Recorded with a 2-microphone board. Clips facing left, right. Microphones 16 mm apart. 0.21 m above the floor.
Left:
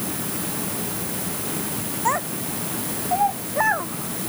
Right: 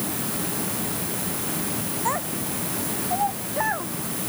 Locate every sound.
2.0 s a child speaking: 25° left (ahead or behind); by 4.3 s 30° left (ahead or behind)